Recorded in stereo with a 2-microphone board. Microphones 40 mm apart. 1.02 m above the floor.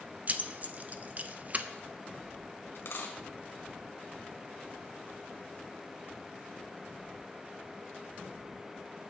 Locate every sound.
0.3 s keys jangling: 35° right (ahead or behind), 0.6 m
2.8 s a dropped coin: 65° left (ahead or behind), 1.6 m